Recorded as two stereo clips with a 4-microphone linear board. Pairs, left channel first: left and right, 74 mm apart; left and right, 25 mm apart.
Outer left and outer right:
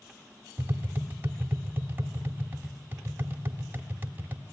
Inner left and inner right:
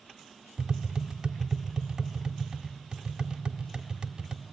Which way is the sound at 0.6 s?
30° right (ahead or behind).